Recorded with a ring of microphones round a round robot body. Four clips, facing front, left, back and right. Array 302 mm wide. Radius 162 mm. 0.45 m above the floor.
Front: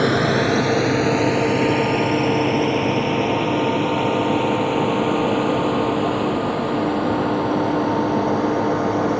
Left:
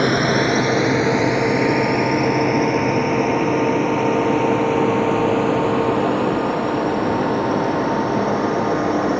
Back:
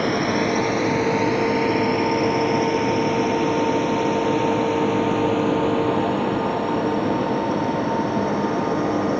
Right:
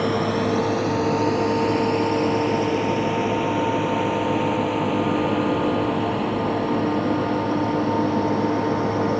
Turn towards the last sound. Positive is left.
turn(degrees=65)